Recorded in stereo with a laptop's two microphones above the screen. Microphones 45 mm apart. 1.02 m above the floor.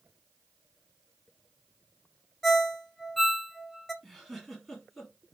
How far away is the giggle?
About 1.2 m.